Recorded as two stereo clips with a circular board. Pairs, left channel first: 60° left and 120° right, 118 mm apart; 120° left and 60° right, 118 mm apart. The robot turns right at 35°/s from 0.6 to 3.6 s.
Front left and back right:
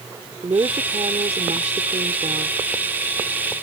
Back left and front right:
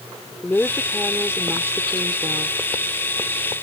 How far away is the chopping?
I don't hear chopping.